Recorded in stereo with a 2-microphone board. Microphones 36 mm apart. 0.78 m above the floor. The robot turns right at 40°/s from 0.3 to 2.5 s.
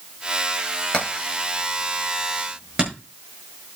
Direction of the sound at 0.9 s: 35° left (ahead or behind).